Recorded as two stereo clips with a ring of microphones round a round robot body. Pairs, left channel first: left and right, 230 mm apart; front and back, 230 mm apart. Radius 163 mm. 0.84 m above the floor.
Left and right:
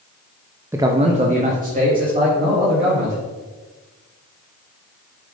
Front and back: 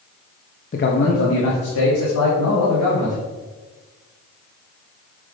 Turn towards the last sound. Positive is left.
turn(degrees=-40)